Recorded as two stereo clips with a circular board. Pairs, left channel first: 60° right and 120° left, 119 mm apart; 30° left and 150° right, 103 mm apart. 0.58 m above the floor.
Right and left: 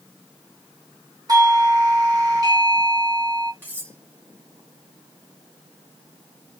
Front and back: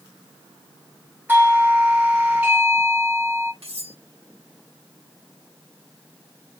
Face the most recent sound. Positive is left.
turn(degrees=-165)